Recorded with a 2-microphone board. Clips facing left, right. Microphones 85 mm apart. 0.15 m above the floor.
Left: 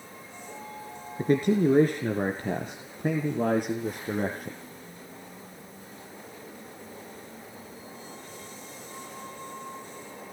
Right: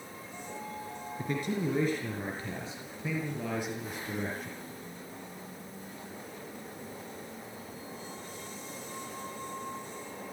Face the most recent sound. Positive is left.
turn(degrees=50)  # may be behind; listen again after turning